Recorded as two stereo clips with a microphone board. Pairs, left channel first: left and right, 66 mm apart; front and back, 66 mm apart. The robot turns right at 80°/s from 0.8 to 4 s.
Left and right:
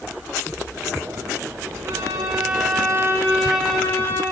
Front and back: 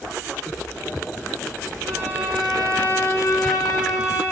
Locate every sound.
1.9 s a violin: 140° right, 4.5 m; by 4.2 s 30° left, 4.5 m